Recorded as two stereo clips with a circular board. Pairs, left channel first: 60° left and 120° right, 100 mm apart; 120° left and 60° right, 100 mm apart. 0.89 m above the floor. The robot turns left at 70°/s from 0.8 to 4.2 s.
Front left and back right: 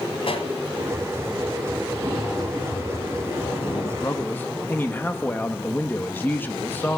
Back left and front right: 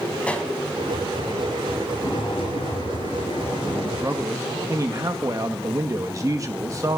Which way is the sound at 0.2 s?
40° left.